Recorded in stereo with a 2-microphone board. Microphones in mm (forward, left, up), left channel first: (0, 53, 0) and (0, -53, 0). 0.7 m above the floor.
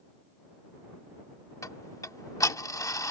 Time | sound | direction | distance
1.6 | ticking | 30° left (ahead or behind) | ?